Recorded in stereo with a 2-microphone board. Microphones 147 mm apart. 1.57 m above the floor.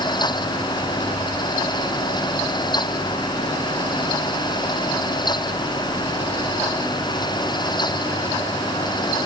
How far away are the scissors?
No scissors in this recording.